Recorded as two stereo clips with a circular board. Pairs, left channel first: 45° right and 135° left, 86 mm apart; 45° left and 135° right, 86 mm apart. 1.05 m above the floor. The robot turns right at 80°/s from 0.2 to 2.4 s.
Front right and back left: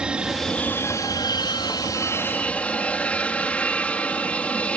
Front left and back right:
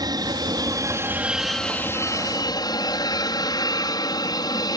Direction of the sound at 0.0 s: 150° right.